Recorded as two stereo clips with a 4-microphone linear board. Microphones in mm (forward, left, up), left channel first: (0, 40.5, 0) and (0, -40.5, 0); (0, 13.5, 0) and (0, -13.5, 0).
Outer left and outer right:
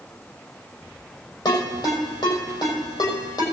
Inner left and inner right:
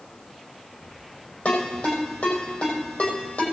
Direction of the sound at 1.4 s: 60° left (ahead or behind).